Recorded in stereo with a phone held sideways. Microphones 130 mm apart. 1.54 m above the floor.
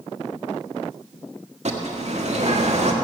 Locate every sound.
1.6 s a bird: 55° right (ahead or behind), 1.5 m